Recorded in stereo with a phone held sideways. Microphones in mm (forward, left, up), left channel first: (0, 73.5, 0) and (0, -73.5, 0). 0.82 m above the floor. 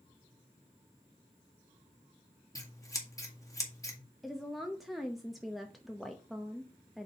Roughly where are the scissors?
Left.